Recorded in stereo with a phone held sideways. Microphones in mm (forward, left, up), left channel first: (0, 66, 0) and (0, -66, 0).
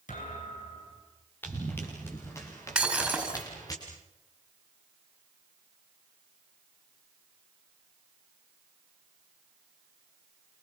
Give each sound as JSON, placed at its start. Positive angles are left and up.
{"t": 0.1, "sound": "a thud", "side_deg": 80, "distance_m": 9.5}
{"t": 1.4, "sound": "running footsteps", "side_deg": 15, "distance_m": 7.5}
{"t": 2.8, "sound": "breaking glass", "side_deg": -5, "distance_m": 4.5}